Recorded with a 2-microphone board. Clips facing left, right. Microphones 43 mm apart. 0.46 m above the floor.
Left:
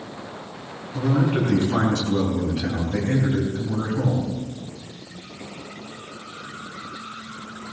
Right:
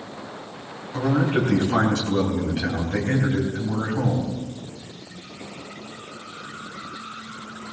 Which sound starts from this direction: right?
A man speaking, at 0.9 s.